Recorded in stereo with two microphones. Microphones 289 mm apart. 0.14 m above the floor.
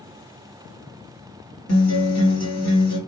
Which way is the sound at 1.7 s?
60° left (ahead or behind).